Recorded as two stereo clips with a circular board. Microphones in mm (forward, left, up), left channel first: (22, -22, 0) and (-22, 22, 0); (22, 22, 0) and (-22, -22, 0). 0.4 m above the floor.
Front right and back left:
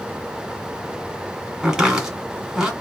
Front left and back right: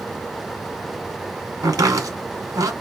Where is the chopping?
145° right, 1.8 m.